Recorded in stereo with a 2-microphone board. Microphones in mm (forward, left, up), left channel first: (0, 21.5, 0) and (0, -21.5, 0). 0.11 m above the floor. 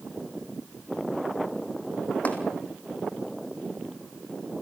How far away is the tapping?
About 2.5 m.